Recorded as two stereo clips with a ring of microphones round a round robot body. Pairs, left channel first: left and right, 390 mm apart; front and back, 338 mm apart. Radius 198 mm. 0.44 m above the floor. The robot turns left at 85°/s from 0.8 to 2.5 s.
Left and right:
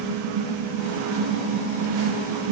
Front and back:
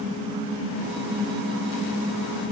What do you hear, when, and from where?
Only background noise.